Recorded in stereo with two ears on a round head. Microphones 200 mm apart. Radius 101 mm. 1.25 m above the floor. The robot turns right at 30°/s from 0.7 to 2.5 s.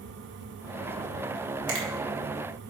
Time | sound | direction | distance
1.7 | a finger snap | 65° right (ahead or behind) | 2 m